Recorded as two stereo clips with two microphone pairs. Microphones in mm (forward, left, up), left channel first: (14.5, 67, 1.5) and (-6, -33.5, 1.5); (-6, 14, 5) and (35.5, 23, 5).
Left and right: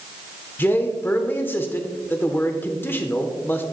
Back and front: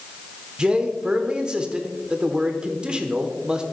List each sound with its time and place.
0.6 s a man speaking: 45° left, 0.8 m